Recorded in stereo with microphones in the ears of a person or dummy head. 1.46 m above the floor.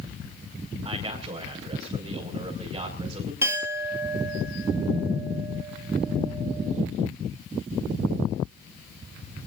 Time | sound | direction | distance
0.8 | a man speaking | 30° right (ahead or behind) | 5.5 m
3.4 | a clink | 15° right (ahead or behind) | 2.0 m